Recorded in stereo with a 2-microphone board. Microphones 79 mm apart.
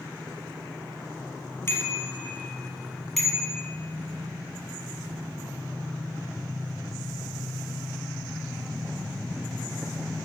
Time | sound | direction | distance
1.7 | a bicycle bell | 30° left (ahead or behind) | 3 m